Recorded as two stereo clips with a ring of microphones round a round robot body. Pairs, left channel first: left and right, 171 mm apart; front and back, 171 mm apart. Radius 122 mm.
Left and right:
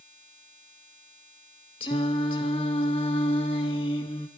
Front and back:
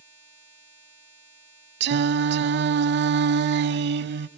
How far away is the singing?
About 0.5 m.